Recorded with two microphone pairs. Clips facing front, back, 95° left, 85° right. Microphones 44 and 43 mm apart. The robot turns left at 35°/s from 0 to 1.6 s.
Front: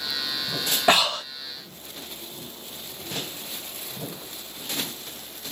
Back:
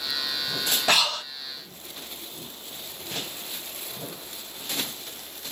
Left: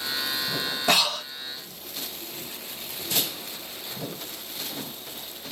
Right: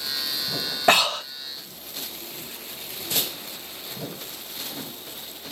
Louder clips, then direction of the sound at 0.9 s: Front 4 dB, right 5 dB; 60° right.